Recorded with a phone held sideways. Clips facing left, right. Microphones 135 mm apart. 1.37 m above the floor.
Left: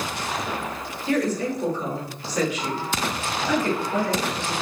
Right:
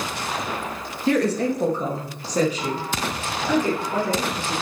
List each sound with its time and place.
1.1 s a woman speaking: 75° right (ahead or behind), 2.0 m; by 4.5 s 10° right (ahead or behind), 4.5 m